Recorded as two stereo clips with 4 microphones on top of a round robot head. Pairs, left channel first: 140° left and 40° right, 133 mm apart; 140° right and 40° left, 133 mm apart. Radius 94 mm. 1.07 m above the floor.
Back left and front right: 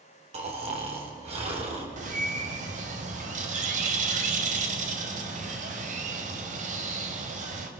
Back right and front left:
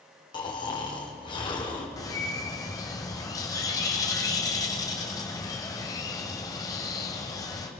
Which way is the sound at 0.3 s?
80° right.